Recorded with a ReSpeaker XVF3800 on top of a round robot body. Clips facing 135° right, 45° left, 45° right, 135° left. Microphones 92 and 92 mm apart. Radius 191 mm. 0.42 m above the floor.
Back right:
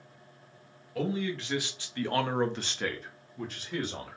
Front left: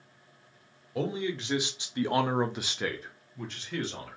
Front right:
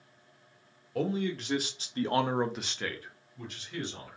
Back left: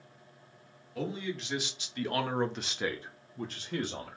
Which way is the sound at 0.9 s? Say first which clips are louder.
Even, front right 5 dB; 20° right.